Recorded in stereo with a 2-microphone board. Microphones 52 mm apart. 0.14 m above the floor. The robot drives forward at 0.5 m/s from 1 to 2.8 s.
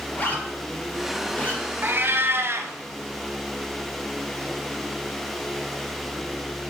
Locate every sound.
0.1 s a zipper: 35° left (ahead or behind), 1.1 m; by 1.6 s 25° left (ahead or behind), 1.4 m
1.8 s a cat meowing: 40° right (ahead or behind), 0.7 m; by 2.7 s 55° right (ahead or behind), 0.6 m